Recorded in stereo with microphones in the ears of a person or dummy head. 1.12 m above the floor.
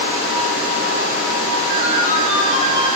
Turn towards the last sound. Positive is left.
turn(degrees=-60)  # may be behind; listen again after turning